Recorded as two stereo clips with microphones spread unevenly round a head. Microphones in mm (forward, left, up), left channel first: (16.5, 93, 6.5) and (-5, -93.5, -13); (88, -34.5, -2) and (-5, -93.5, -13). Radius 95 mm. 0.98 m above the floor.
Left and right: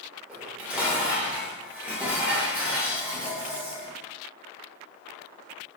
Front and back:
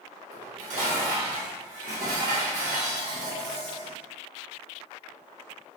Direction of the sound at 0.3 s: Straight behind.